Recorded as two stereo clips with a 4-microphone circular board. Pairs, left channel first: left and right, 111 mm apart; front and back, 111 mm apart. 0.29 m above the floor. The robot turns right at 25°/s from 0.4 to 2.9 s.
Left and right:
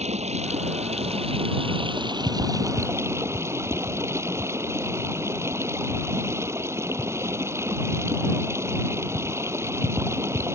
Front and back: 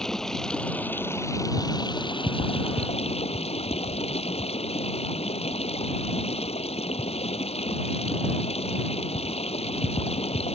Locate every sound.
0.0 s running water: 85° right; by 10.6 s 25° right